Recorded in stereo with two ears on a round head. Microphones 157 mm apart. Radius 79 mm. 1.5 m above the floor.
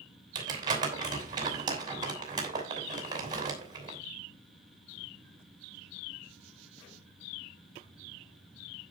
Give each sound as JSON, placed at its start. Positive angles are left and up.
{"t": 0.3, "sound": "crumpling", "side_deg": -25, "distance_m": 6.0}